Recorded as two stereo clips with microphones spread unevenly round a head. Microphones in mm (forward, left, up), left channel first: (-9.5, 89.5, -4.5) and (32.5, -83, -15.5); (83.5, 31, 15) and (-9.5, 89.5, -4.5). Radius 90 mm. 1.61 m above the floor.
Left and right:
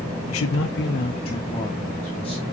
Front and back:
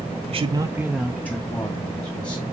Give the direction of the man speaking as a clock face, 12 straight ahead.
8 o'clock.